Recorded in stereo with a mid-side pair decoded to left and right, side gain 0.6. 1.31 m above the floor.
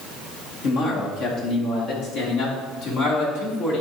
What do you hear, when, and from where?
0.6 s a man speaking: 70° left, 2.5 m; by 3.8 s 75° left, 4 m